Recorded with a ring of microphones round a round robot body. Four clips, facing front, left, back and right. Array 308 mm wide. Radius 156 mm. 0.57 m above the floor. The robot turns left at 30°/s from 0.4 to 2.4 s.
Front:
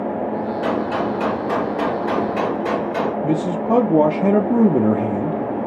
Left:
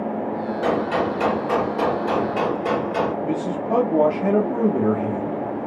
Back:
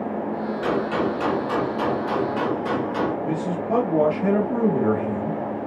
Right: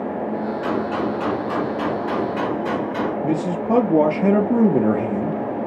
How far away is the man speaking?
About 0.9 m.